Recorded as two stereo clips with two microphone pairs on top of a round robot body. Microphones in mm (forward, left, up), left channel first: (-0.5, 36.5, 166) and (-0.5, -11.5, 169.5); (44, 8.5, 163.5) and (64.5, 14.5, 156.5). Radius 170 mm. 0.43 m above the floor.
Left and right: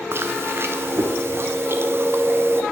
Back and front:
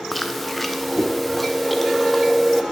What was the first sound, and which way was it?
Chewing, 65° right.